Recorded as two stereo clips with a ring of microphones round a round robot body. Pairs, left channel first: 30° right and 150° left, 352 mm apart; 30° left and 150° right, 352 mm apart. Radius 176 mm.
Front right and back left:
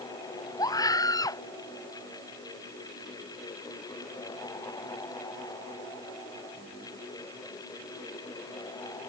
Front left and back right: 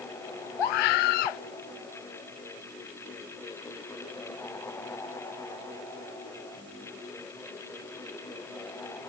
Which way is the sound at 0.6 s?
50° left.